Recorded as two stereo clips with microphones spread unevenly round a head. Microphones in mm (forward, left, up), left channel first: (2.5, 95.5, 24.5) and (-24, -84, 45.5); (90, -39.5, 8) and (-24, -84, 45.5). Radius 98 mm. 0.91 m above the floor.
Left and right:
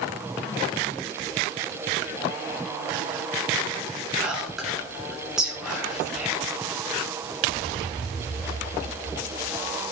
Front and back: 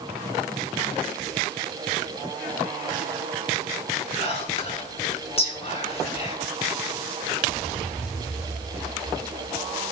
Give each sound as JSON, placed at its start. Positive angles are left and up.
{"t": 4.2, "sound": "whispering", "azimuth_deg": -10, "distance_m": 6.5}